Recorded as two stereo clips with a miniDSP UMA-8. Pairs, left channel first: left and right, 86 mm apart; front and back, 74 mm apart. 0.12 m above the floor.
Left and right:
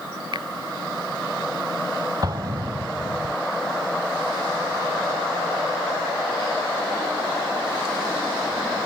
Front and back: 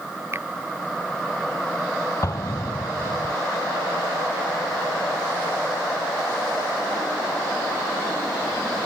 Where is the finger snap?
125° right.